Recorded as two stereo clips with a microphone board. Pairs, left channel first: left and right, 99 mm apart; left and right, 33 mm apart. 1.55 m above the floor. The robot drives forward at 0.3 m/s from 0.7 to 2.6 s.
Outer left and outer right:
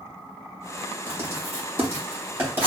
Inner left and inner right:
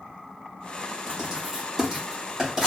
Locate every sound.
1.1 s writing: 25° right (ahead or behind), 2 m; by 2.7 s 20° right (ahead or behind), 2.5 m